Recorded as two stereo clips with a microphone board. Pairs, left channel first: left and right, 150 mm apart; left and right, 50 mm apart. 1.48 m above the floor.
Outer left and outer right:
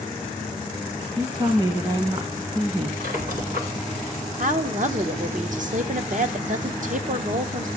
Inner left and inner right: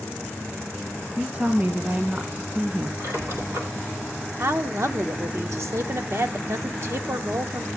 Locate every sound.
1.2 s a woman speaking: 40° right (ahead or behind), 1.1 m
3.0 s a squeak: 70° right (ahead or behind), 2 m
4.4 s a woman speaking: 60° right (ahead or behind), 0.8 m